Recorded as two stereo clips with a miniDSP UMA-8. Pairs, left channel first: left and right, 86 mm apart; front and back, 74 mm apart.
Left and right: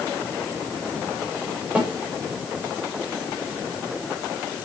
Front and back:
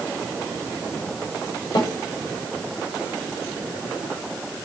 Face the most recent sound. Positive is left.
turn(degrees=-15)